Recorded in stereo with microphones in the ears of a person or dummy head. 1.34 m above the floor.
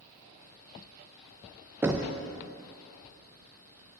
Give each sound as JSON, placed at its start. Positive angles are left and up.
{"t": 1.8, "sound": "knocking", "side_deg": -10, "distance_m": 0.5}